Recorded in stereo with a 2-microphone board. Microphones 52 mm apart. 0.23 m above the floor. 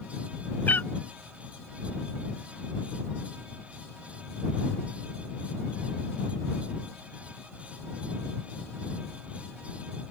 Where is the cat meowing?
40° left (ahead or behind).